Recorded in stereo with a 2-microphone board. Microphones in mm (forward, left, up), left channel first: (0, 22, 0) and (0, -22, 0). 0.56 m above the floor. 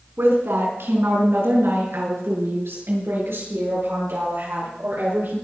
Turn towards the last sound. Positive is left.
turn(degrees=-65)  # may be behind; listen again after turning